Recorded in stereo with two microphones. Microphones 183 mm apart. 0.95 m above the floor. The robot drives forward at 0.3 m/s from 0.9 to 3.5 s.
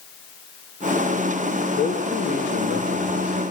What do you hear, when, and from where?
1.8 s a man speaking: 60° left (ahead or behind), 2.5 m; by 3.4 s 50° left (ahead or behind), 3 m